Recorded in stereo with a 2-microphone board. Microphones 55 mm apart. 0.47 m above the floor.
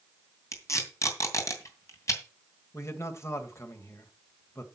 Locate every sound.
0.5 s tape being pulled: 65° left (ahead or behind), 2.5 m
2.7 s a man speaking: 60° left (ahead or behind), 1.8 m